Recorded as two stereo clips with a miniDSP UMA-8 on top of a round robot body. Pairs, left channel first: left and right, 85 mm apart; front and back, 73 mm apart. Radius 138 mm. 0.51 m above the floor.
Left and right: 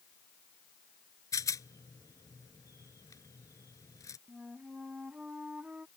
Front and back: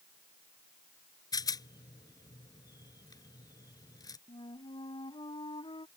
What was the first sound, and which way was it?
A rattle, 40° left.